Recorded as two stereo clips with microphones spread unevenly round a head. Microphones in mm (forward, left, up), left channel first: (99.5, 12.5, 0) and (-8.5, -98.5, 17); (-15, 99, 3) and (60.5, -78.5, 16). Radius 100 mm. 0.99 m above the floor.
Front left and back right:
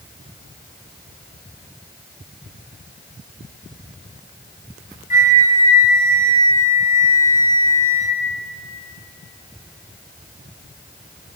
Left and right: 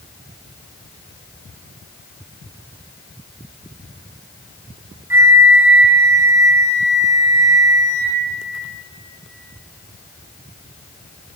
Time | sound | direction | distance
5.1 | a flute | 10° left | 3 m